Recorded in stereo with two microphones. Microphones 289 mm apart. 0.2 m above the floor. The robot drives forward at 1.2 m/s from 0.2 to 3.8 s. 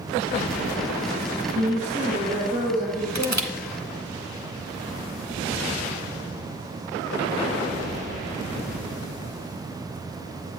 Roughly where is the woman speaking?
Right.